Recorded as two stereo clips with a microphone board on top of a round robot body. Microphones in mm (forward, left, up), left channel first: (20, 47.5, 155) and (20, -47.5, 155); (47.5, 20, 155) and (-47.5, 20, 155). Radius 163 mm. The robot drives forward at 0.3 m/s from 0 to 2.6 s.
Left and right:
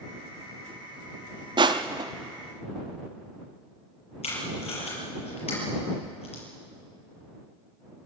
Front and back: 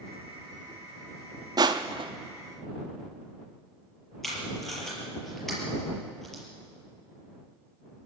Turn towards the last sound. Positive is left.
turn(degrees=85)